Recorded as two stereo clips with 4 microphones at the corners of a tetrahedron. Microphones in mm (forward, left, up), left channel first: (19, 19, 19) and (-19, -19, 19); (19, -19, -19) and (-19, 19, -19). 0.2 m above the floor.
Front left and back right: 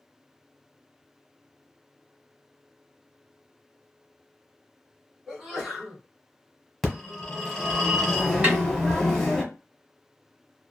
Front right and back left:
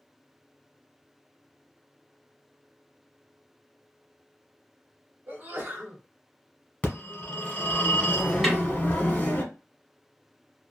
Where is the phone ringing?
35° right, 1.1 m.